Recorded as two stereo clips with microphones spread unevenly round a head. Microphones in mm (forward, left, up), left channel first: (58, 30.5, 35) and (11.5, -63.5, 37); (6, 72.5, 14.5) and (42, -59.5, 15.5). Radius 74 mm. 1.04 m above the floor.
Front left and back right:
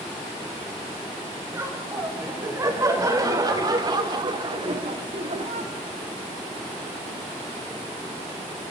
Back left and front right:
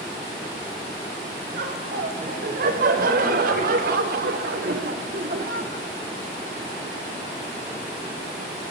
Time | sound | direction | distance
1.5 | laughter | 50° right | 6.5 m